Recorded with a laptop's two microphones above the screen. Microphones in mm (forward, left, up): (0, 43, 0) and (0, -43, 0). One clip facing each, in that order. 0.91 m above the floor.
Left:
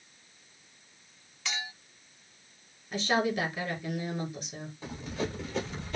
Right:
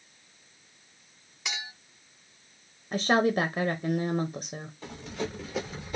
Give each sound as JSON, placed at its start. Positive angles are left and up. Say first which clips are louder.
{"t": 1.4, "sound": "a clink", "louder": "left 1 dB", "side_deg": -15, "distance_m": 1.3}
{"t": 2.9, "sound": "a woman speaking", "louder": "right 4 dB", "side_deg": -45, "distance_m": 0.5}
{"t": 4.8, "sound": "running footsteps", "louder": "left 1 dB", "side_deg": 5, "distance_m": 1.9}